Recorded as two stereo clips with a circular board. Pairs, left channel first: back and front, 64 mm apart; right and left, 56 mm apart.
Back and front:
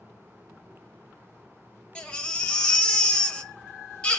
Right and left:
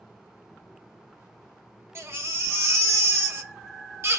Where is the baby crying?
110° left, 0.9 m.